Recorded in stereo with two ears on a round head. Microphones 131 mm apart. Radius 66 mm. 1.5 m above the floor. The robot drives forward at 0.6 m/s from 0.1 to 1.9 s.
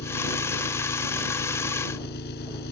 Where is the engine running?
85° left.